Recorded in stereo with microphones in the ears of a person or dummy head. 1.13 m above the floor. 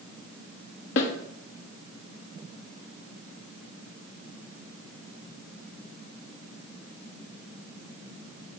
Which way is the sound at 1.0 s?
70° left (ahead or behind).